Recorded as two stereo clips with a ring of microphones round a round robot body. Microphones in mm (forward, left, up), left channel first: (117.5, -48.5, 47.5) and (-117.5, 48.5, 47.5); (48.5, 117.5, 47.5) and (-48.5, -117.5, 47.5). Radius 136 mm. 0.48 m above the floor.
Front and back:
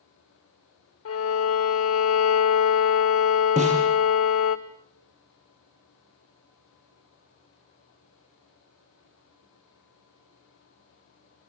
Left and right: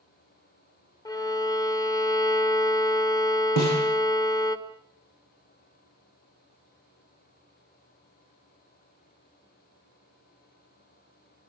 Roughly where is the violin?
Ahead.